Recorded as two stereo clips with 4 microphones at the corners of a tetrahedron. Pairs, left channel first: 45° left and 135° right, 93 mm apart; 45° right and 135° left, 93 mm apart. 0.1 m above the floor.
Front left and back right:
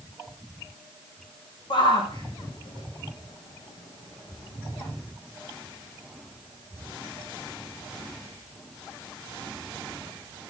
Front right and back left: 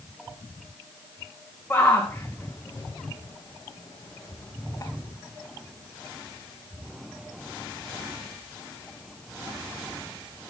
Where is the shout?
20° left, 5.5 m; by 4.9 s 5° left, 7.5 m.